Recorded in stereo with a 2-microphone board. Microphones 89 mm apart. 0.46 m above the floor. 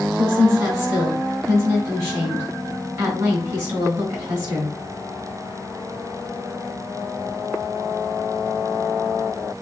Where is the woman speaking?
30° right (ahead or behind), 4.5 m.